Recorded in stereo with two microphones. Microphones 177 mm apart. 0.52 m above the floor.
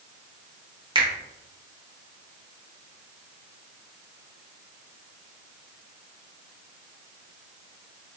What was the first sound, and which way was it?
A finger snap, 30° right (ahead or behind).